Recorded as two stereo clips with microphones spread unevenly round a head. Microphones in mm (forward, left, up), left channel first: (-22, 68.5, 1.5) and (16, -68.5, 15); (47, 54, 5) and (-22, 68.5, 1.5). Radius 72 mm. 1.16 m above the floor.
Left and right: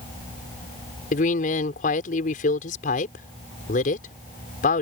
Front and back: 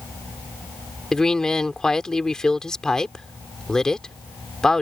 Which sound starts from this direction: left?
A woman speaking, at 1.1 s.